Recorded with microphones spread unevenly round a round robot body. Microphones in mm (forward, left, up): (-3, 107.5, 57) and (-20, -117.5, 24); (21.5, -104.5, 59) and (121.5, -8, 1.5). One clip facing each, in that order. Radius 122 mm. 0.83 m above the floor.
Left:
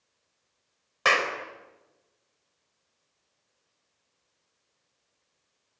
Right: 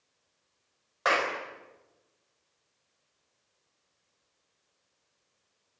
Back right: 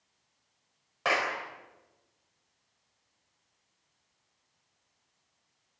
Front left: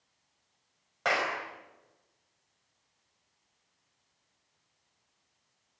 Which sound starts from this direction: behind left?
A clap, at 1.1 s.